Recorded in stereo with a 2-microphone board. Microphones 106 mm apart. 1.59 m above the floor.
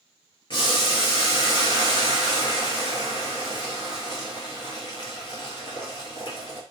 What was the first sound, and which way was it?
Boiling, 45° left (ahead or behind).